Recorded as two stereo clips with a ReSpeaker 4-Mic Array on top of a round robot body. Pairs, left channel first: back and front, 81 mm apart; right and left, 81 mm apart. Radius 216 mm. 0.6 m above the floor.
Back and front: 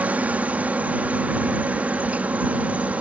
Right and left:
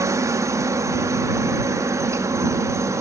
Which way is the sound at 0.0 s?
65° left.